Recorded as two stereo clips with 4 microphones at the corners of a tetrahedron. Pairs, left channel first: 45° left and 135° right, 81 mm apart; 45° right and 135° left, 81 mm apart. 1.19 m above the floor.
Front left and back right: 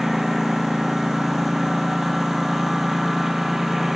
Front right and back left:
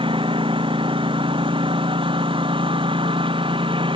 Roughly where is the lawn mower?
Behind left.